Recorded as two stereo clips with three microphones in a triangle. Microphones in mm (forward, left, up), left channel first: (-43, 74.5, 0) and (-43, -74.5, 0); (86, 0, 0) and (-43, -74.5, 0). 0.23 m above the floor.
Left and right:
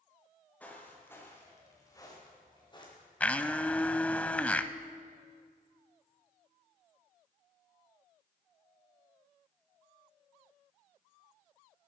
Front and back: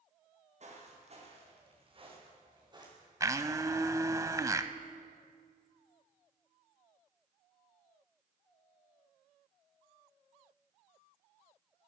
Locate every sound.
0.6 s footsteps: 170° left, 4 m; by 3.1 s 145° left, 5 m
3.2 s a blender: 165° left, 0.5 m